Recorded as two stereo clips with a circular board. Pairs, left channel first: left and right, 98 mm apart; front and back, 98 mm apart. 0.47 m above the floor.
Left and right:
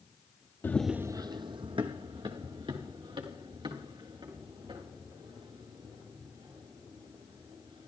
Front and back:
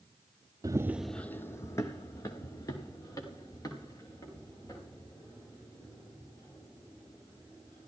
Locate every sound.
0.6 s running footsteps: 150° left, 0.6 m; by 7.9 s 55° right, 9 m